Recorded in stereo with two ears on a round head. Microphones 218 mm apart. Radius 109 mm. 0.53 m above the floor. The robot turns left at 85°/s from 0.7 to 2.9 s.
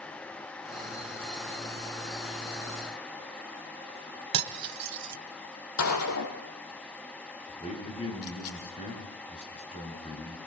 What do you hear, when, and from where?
4.3 s cutlery clinking: 80° right, 1.8 m
5.8 s a gunshot: 65° left (ahead or behind), 4.5 m
7.6 s a man speaking: 25° left (ahead or behind), 8 m